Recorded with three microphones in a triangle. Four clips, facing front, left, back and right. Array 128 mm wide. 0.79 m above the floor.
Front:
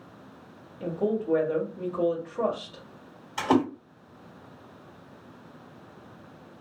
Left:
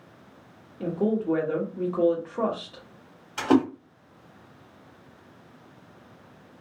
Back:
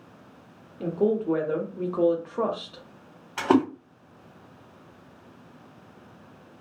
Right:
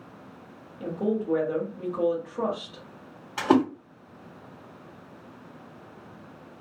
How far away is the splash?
About 1.7 m.